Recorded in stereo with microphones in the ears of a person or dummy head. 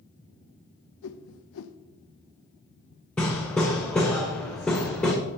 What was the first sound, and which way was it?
A whoosh, 70° left (ahead or behind).